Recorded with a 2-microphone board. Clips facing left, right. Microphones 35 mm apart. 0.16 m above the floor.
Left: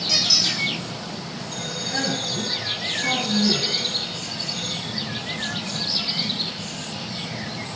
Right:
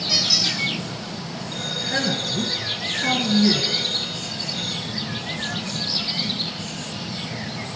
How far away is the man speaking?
About 2.5 m.